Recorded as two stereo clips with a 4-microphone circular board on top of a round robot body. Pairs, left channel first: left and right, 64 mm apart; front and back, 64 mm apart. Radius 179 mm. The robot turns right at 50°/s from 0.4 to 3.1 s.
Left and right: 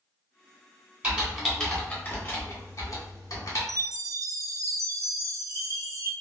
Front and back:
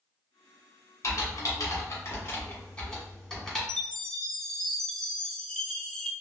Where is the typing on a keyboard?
20° right, 1.5 m; by 3.6 s 85° left, 1.5 m.